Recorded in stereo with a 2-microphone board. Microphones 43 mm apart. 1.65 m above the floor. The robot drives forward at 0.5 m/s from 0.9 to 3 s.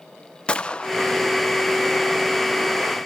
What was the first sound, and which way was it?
A gunshot, 25° left (ahead or behind).